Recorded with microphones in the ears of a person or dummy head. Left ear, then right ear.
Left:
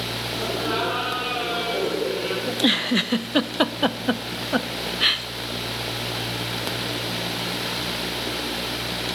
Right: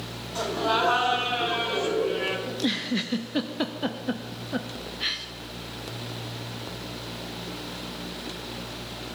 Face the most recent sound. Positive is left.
turn(degrees=40)  # may be behind; listen again after turning